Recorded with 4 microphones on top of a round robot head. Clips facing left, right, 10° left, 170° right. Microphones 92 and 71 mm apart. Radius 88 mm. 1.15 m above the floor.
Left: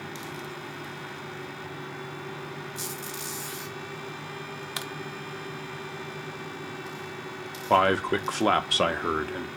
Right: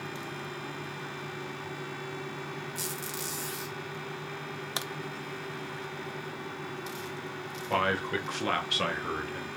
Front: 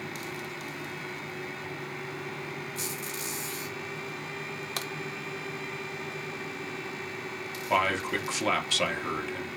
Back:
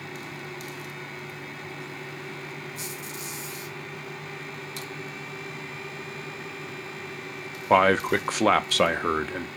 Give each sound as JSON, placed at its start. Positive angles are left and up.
{"t": 2.8, "sound": "a squeak", "azimuth_deg": -55, "distance_m": 1.2}
{"t": 4.8, "sound": "a crack", "azimuth_deg": -25, "distance_m": 0.5}
{"t": 7.7, "sound": "a man speaking", "azimuth_deg": 145, "distance_m": 0.5}